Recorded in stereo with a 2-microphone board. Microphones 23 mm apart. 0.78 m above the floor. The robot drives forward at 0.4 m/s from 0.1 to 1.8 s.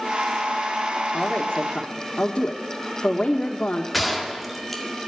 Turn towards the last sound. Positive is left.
turn(degrees=-5)  # may be behind; listen again after turning